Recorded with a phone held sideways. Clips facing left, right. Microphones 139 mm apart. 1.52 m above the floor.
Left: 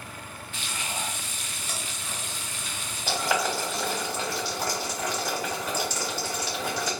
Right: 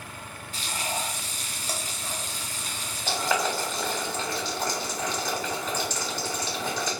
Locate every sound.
0.5 s frying: 40° right (ahead or behind), 0.5 m
3.1 s boiling: 10° left (ahead or behind), 1.2 m